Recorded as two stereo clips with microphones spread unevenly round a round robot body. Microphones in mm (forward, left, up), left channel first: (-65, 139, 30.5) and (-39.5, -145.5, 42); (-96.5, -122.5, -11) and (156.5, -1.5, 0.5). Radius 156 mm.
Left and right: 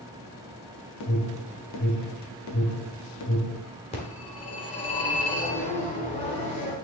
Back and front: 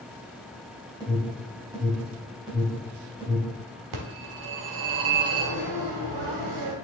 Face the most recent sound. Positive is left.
turn(degrees=25)